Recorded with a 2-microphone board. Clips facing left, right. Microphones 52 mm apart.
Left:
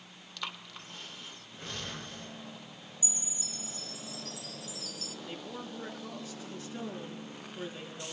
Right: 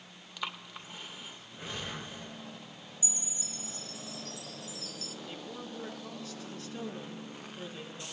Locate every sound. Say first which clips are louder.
0.4 s breathing: right 2 dB; 15° right (ahead or behind), 0.7 m
3.0 s a chime: even; 40° right (ahead or behind), 1.1 m
5.2 s a woman speaking: left 2 dB; 20° left (ahead or behind), 4 m